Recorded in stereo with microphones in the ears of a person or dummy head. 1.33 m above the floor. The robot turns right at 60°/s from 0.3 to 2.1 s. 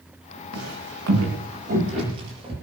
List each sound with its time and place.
0.5 s footsteps: 60° right (ahead or behind), 8 m; by 2.5 s 35° right (ahead or behind), 9 m